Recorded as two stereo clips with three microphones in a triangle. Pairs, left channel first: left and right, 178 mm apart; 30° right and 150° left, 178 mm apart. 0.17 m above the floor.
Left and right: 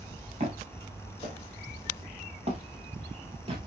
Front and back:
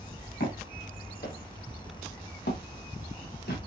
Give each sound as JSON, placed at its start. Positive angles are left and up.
{"t": 0.4, "sound": "footsteps", "azimuth_deg": -40, "distance_m": 6.0}